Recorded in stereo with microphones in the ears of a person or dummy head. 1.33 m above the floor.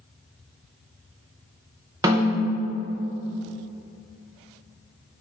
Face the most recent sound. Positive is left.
turn(degrees=-20)  # may be behind; listen again after turning